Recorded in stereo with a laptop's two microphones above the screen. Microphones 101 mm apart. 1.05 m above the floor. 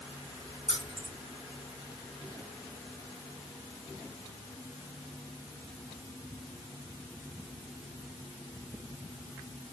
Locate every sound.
0.7 s keys jangling: 75° right (ahead or behind), 2.5 m